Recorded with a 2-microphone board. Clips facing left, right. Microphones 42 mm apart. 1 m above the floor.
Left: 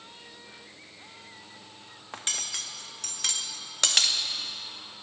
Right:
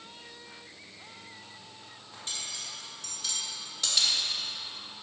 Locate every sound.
2.1 s cutlery clinking: 65° left (ahead or behind), 0.6 m